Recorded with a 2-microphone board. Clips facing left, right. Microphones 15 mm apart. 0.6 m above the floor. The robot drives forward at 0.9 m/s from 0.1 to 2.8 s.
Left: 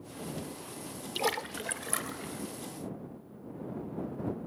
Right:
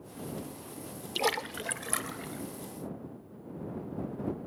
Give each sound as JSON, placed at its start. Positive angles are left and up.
{"t": 1.1, "sound": "a splash", "side_deg": -10, "distance_m": 0.8}